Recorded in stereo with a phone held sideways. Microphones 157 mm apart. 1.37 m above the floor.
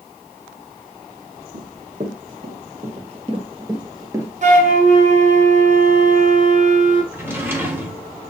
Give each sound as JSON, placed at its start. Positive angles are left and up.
{"t": 1.5, "sound": "running footsteps", "side_deg": -60, "distance_m": 2.5}
{"t": 4.4, "sound": "a flute", "side_deg": -50, "distance_m": 1.4}
{"t": 7.1, "sound": "a drawer", "side_deg": -15, "distance_m": 1.6}